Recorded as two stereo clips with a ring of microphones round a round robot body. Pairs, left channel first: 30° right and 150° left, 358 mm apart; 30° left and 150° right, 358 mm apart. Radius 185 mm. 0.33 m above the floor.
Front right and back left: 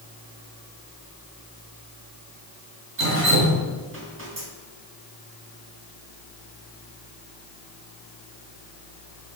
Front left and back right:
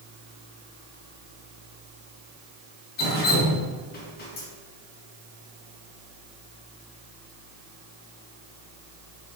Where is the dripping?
95° left, 3.5 m.